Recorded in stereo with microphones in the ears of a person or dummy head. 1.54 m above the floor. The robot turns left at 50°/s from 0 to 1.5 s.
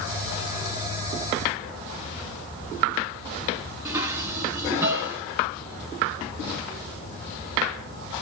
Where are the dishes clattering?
25° right (ahead or behind), 2 m.